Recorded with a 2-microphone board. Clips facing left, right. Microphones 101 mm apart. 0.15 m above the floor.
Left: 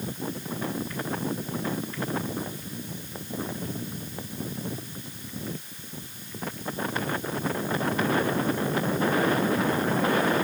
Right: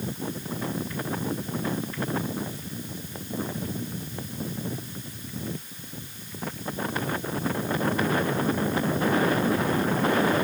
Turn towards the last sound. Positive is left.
No sound to turn to.